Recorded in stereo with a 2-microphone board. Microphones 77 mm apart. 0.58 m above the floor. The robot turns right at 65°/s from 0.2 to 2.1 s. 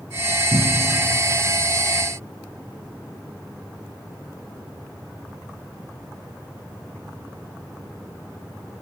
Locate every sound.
0.5 s a cupboard door: 65° right (ahead or behind), 2.5 m; by 1.0 s 35° right (ahead or behind), 2.5 m